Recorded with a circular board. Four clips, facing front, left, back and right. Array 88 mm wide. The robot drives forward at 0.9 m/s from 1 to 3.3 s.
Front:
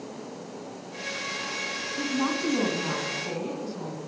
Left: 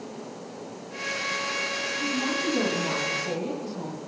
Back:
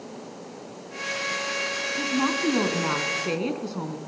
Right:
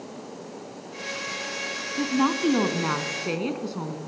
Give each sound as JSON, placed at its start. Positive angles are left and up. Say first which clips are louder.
{"t": 2.0, "sound": "a woman speaking", "louder": "right 7 dB, back 2 dB", "azimuth_deg": -95, "distance_m": 1.6}